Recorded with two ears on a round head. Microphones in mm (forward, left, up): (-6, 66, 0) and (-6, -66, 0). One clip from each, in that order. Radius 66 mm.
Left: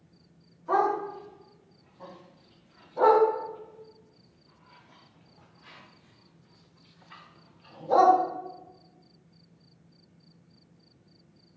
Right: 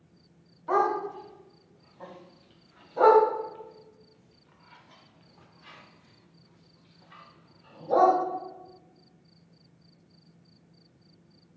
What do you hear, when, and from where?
0.7 s a dog barking: 80° right, 4 m; by 8.2 s 50° left (ahead or behind), 1.9 m